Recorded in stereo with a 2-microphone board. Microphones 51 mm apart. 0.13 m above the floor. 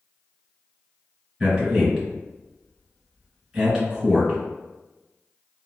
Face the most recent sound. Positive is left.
turn(degrees=-15)  # may be behind; listen again after turning